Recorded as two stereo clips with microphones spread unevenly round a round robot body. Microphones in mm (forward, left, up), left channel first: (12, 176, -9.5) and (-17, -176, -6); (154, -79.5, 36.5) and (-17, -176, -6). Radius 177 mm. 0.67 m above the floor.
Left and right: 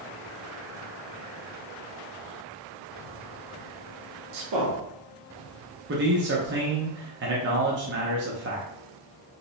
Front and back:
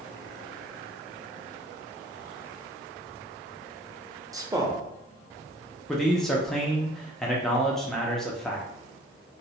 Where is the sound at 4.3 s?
90° right, 0.9 m.